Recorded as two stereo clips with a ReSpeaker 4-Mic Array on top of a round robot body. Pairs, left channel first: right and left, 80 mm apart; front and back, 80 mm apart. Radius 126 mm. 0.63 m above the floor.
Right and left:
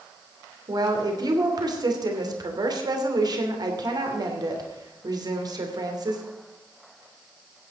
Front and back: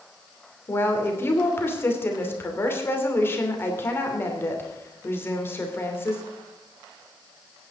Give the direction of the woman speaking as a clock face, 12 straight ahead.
10 o'clock.